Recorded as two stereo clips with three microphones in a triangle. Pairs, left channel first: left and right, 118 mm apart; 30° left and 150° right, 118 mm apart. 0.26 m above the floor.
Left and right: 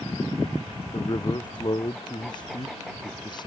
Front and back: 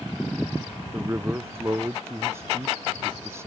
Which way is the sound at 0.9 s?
140° left.